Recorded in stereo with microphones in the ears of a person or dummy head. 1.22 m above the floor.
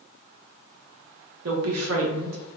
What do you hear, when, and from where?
1.4 s a woman speaking: 80° right, 0.8 m